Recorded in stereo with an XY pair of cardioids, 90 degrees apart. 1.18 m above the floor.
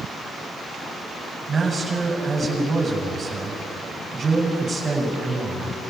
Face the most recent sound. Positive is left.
turn(degrees=-35)